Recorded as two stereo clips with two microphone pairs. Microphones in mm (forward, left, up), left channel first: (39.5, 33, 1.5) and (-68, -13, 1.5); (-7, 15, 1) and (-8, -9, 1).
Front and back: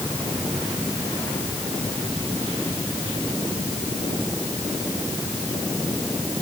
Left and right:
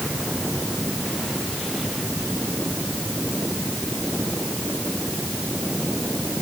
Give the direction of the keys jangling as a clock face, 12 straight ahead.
No keys jangling in this recording.